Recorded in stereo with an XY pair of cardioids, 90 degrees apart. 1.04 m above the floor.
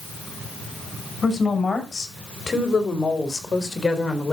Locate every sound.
1.2 s a woman speaking: 30° left, 6 m; by 4.3 s 15° left, 4.5 m